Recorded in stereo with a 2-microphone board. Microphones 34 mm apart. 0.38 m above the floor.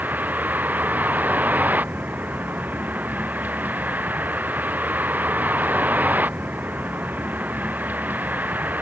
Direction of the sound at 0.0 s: 65° right (ahead or behind).